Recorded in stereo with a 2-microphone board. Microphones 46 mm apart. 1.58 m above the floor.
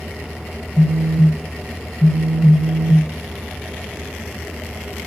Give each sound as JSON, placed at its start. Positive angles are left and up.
{"t": 0.8, "sound": "a phone buzzing", "side_deg": 15, "distance_m": 0.8}